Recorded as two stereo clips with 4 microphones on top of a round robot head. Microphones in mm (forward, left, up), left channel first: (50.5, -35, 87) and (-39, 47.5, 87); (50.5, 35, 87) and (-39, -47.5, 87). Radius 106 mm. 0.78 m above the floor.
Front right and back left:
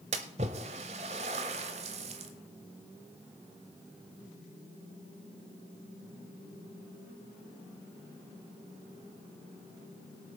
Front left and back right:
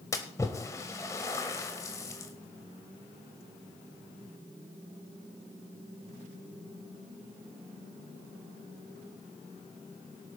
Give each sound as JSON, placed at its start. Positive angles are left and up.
{"t": 0.1, "sound": "a splash", "azimuth_deg": 110, "distance_m": 0.7}